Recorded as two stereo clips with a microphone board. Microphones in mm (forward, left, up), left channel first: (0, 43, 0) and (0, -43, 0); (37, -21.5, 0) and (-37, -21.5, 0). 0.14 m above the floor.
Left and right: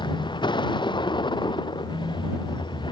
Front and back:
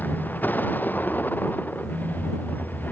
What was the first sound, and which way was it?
A vehicle, 65° left.